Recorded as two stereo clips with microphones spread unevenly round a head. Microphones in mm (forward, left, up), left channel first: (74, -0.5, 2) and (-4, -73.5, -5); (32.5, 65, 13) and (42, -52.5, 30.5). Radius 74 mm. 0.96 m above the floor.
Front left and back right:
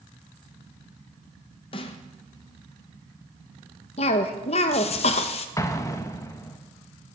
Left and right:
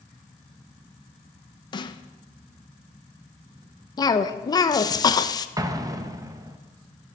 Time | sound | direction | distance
1.7 | a snare drum | 75° left | 0.7 m
4.0 | a cough | 55° left | 0.8 m
5.6 | an explosion | 20° right | 0.9 m